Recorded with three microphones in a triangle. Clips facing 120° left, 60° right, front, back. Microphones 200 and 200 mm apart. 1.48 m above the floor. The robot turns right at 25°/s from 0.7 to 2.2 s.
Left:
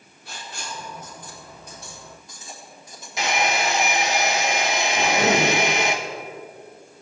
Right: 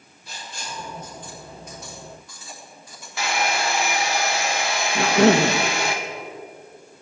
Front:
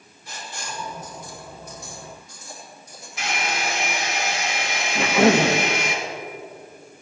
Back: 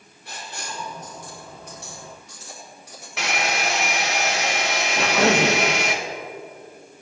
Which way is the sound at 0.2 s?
150° left.